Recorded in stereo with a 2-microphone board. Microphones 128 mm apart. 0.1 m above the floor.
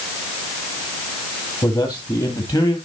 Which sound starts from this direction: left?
A man speaking, at 1.6 s.